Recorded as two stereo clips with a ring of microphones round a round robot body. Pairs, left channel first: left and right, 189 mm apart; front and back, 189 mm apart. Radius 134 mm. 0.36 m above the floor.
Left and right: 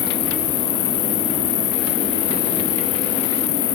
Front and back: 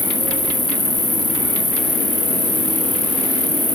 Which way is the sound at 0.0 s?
100° left.